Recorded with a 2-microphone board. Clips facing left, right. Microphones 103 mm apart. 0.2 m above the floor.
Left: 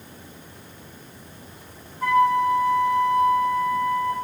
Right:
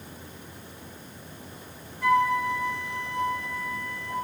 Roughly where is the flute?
Left.